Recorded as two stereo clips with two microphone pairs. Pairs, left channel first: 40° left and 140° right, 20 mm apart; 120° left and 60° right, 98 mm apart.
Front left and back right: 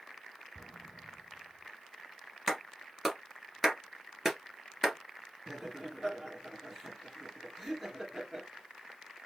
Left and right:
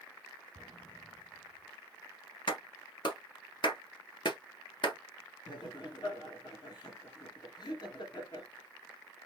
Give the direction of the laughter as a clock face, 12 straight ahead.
8 o'clock.